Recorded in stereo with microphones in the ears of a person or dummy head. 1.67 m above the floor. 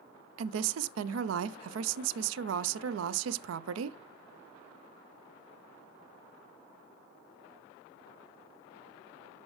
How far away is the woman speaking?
About 0.5 m.